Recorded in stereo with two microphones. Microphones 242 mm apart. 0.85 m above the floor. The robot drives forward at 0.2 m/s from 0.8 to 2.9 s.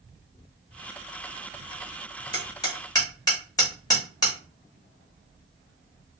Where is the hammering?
15° left (ahead or behind), 1.4 m.